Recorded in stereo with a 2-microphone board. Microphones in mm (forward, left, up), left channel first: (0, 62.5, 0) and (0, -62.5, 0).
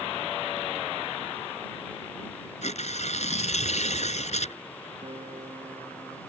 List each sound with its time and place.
2.6 s tearing paper: 65° left (ahead or behind)
5.0 s a guitar: 50° right (ahead or behind)